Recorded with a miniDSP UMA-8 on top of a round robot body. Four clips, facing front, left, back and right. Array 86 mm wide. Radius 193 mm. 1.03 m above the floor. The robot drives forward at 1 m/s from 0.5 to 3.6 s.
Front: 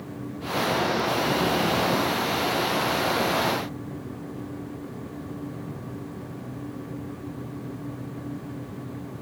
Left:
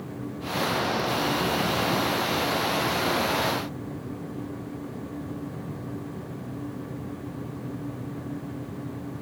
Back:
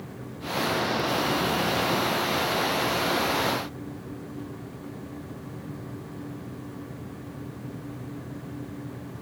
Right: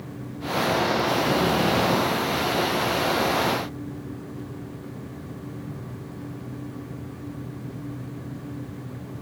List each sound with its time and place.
Only background noise.